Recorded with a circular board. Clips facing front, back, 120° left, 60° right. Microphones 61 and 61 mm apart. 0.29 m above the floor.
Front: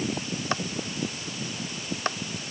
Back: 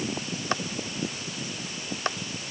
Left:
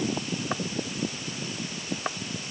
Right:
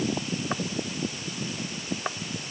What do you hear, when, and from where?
Only background noise.